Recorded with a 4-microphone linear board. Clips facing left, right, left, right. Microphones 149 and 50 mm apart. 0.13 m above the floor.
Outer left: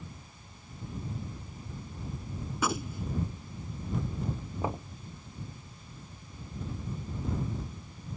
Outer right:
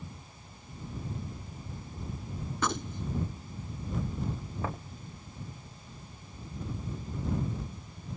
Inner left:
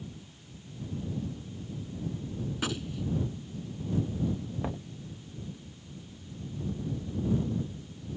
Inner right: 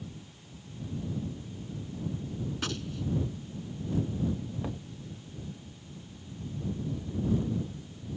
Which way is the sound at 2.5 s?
10° left (ahead or behind).